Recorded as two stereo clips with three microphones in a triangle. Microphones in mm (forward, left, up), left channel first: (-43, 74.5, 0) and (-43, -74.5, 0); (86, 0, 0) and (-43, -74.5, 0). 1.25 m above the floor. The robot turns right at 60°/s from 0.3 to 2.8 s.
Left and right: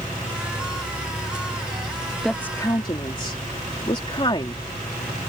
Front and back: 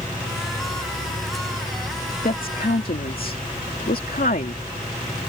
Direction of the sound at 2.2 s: Straight ahead.